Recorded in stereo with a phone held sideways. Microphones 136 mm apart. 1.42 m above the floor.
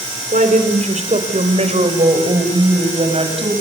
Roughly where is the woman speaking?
Right.